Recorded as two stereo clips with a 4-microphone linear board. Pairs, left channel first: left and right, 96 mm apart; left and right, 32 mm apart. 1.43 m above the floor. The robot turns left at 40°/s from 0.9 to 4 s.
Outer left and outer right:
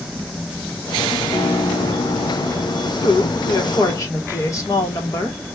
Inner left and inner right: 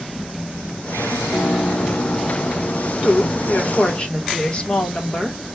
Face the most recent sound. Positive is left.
turn(degrees=35)